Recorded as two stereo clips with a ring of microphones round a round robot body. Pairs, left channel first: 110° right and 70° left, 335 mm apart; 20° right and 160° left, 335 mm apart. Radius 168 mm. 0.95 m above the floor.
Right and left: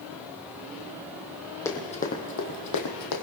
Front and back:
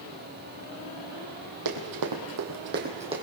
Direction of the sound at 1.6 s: 165° left.